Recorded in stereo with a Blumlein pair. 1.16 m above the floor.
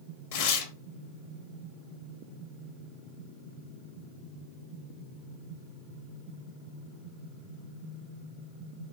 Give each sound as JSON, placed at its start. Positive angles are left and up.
{"t": 0.3, "sound": "tearing paper", "azimuth_deg": 50, "distance_m": 1.1}